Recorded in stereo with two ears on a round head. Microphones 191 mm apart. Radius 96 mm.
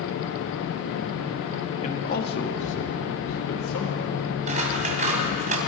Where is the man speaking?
30° left (ahead or behind), 1.3 m; by 4.3 s 75° left (ahead or behind), 4 m.